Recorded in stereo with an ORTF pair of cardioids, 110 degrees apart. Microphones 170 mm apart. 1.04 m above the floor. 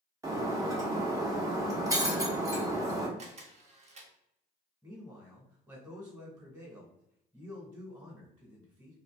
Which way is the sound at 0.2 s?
20° right.